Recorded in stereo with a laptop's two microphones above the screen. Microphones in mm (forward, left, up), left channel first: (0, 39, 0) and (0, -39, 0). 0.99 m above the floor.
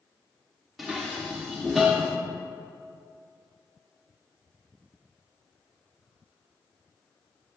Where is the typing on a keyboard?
No typing on a keyboard in this recording.